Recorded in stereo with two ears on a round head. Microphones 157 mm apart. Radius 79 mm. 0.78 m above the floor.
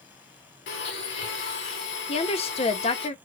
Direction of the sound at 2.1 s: 30° left (ahead or behind).